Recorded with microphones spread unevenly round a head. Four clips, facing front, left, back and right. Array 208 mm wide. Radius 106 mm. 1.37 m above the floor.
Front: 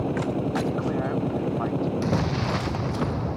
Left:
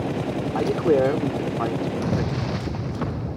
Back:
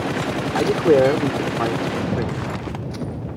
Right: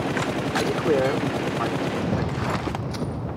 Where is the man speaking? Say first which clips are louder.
Left 3 dB, back 11 dB; 175° left.